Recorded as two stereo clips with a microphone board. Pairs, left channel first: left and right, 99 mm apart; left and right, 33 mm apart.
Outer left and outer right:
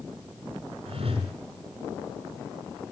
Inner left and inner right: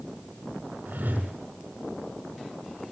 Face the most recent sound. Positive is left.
turn(degrees=-85)